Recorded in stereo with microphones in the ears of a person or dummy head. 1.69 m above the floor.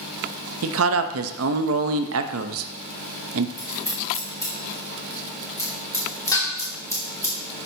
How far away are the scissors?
About 1.8 m.